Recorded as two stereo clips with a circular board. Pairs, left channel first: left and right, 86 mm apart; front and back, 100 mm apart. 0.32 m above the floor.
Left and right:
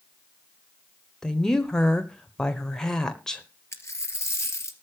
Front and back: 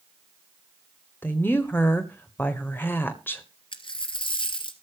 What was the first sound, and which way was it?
A woman speaking, 20° left.